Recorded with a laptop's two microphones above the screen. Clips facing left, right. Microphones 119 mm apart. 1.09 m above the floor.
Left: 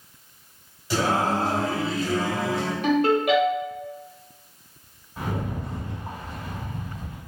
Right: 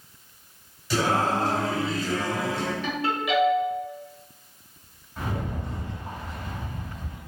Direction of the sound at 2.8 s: 50° left (ahead or behind).